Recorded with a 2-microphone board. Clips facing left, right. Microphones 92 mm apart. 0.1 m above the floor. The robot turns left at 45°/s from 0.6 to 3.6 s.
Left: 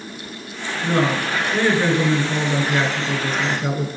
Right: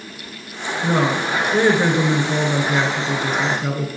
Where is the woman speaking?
15° right (ahead or behind), 1.3 m; by 3.9 s centre (ahead or behind), 1.3 m.